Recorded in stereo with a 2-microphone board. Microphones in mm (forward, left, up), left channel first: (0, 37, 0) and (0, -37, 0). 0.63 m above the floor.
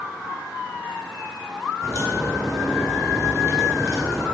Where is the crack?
35° right (ahead or behind), 2 m.